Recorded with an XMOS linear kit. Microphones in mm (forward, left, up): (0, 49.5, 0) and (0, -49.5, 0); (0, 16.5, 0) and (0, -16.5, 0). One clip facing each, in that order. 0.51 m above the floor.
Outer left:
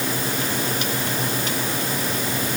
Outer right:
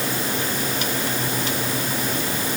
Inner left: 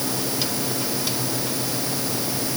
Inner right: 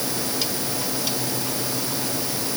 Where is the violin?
No violin in this recording.